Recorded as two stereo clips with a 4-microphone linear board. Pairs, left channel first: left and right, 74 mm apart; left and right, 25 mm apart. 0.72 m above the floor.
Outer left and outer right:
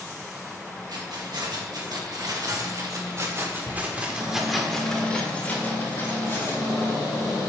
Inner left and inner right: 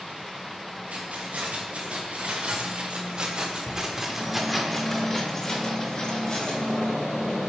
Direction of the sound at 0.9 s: 75° right (ahead or behind).